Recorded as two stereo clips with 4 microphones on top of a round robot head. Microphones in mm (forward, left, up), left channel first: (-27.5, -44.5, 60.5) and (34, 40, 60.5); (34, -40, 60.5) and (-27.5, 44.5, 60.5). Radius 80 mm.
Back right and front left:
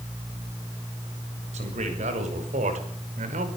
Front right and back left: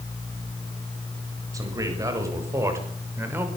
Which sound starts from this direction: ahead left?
A man speaking, at 1.5 s.